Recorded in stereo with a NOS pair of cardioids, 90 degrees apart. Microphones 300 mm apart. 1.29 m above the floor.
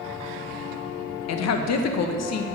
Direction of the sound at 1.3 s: 60° left.